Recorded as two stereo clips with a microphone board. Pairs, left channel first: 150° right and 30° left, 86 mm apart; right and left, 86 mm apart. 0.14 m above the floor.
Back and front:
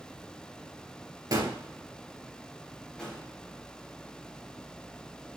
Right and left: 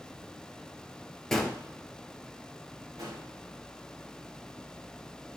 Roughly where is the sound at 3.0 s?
Behind left.